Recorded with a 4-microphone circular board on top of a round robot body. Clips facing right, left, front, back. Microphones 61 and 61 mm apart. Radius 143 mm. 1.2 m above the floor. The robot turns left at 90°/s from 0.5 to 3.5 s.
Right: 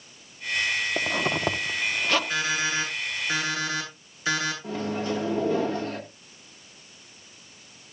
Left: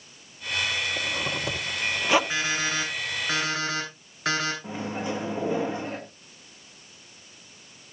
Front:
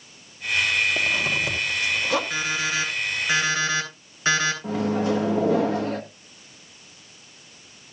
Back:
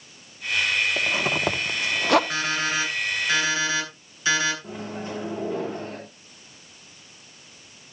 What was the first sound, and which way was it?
A zipper, 90° right.